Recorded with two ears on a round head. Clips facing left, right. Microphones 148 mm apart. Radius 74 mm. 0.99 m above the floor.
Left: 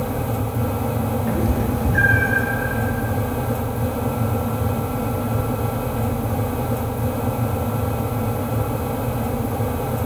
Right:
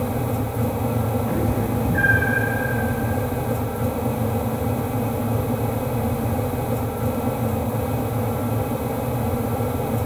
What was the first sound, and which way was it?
A cat meowing, 20° left (ahead or behind).